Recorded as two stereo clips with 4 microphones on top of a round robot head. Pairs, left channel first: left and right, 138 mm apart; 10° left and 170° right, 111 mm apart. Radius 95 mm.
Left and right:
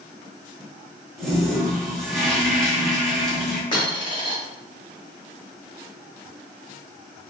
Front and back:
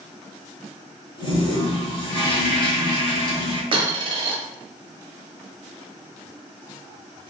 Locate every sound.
1.2 s a toilet flushing: straight ahead, 1.0 m
3.7 s a dropped coin: 150° left, 0.8 m